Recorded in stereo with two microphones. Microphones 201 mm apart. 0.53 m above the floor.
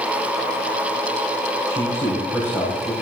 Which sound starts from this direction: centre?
A man speaking, at 1.7 s.